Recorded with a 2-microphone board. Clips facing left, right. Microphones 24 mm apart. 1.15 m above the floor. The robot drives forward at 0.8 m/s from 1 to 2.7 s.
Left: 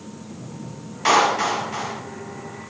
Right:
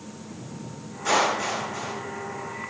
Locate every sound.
1.1 s a clap: 70° left (ahead or behind), 8.5 m; by 2.0 s 75° left (ahead or behind), 8 m